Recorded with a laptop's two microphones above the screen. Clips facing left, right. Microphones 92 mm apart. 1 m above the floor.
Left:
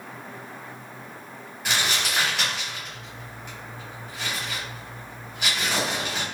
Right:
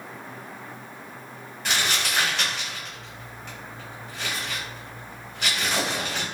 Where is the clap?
No clap in this recording.